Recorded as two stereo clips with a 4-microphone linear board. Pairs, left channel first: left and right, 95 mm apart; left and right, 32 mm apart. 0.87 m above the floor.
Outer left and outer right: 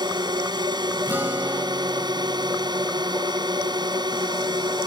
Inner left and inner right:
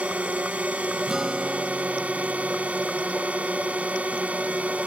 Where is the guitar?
20° right (ahead or behind).